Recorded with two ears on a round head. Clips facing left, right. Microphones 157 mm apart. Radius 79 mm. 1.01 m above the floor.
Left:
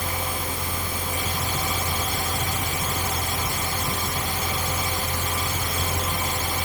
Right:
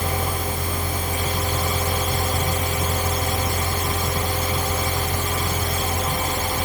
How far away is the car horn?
I don't hear a car horn.